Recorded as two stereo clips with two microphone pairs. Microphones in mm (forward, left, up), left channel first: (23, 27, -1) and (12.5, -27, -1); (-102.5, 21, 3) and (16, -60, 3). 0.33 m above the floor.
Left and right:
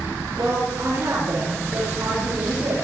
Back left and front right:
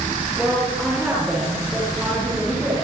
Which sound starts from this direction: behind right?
A woman speaking, at 0.4 s.